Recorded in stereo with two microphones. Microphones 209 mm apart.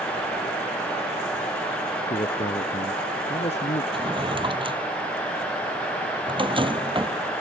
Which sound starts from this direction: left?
A man speaking, at 2.1 s.